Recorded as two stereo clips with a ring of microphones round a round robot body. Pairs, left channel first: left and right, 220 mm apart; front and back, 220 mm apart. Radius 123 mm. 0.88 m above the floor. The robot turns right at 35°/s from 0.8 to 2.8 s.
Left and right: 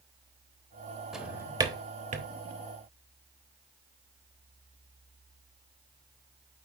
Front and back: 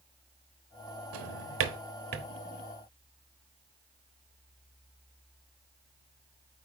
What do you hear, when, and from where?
1.1 s a drawer: straight behind, 1.0 m; by 2.3 s 140° right, 1.0 m